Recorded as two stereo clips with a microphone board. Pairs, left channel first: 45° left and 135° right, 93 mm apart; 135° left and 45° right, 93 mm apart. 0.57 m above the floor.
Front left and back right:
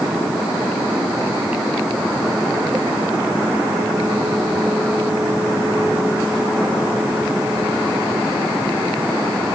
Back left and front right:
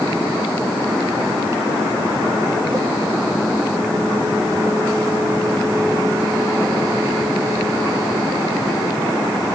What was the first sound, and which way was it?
Only background noise.